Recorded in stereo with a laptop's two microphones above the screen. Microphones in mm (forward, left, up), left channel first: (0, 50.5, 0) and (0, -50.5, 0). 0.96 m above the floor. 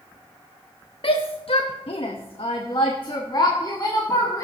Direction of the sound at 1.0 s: 60° left (ahead or behind).